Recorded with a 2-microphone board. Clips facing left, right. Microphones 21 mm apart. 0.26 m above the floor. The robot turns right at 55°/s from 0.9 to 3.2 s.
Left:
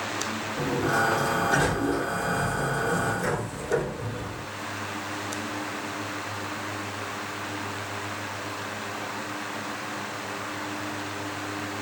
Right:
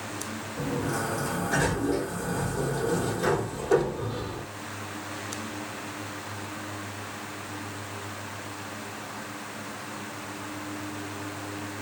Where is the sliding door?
120° left, 3 m; by 4.5 s 115° right, 3 m.